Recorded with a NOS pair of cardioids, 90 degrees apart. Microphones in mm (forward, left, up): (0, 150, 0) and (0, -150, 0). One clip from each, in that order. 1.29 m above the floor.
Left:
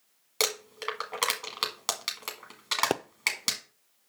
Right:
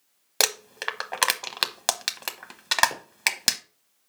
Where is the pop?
70° left, 0.5 m.